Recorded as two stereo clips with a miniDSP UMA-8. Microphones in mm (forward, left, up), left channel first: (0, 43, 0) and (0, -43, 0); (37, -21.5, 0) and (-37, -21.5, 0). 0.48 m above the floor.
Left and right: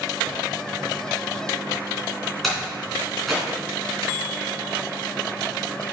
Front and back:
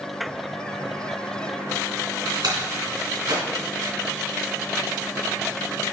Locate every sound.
2.4 s a door slam: straight behind, 3 m